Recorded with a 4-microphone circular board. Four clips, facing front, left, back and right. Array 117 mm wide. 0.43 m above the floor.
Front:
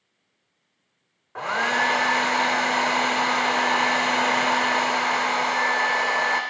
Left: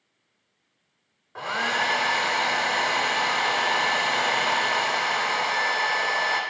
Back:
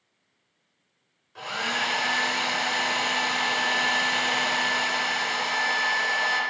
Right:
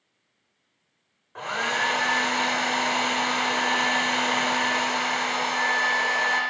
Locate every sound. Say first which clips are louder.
1.4 s a hair dryer: left 1 dB, front 7 dB; 5° left, 0.5 m